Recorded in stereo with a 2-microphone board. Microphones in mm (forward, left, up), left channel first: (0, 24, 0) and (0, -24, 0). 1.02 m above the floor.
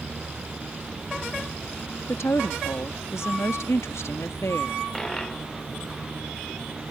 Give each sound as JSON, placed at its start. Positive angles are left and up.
{"t": 2.1, "sound": "a woman speaking", "side_deg": 70}
{"t": 4.9, "sound": "a dropped coin", "side_deg": 10}